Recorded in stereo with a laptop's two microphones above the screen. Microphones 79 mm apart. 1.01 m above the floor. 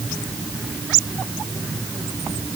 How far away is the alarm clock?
No alarm clock in this recording.